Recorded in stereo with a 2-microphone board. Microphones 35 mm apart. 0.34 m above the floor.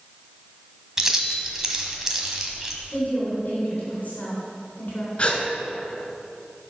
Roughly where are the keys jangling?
Centre.